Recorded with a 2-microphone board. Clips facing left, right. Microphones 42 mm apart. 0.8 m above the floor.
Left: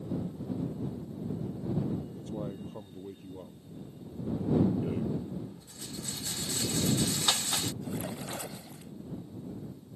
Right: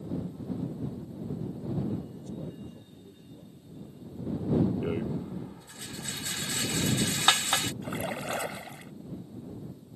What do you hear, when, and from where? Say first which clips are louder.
2.1 s a man speaking: left 2 dB; 85° left
4.8 s a rattle: right 1 dB; 50° right (ahead or behind)
7.8 s a splash: right 4 dB; 60° right (ahead or behind)